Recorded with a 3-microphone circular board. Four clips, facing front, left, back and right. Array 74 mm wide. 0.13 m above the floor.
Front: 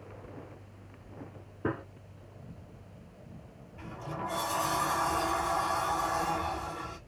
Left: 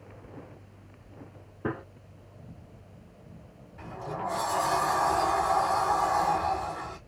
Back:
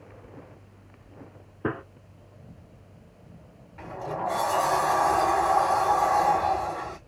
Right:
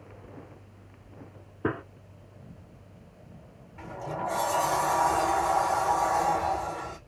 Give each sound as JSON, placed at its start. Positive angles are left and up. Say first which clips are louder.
{"t": 1.6, "sound": "a gunshot", "louder": "right 3 dB, back 3 dB", "azimuth_deg": -140, "distance_m": 0.8}
{"t": 3.8, "sound": "a sliding door", "louder": "right 1 dB, back 7 dB", "azimuth_deg": -165, "distance_m": 2.5}